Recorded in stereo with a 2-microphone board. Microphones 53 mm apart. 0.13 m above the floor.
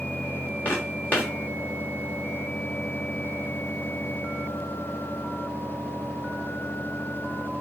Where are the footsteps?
35° left (ahead or behind), 3.5 m.